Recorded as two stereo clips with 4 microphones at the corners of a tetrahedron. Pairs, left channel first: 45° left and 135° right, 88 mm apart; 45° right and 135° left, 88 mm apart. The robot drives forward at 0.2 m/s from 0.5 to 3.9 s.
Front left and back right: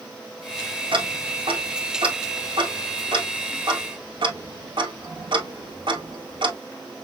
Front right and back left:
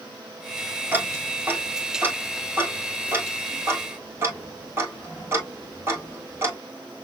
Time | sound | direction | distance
0.9 | ticking | 155° right | 1.6 m